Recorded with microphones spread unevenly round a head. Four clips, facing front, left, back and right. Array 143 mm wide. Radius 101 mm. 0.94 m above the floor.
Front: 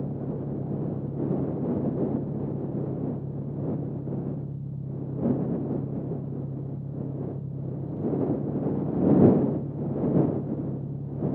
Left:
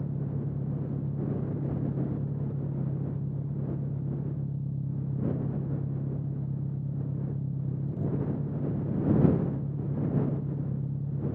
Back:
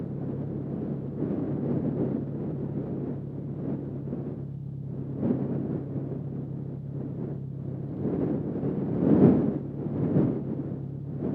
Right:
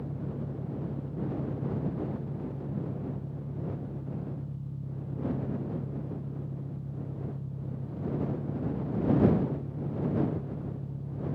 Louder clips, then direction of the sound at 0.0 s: Left 2 dB, front 2 dB; 45° left.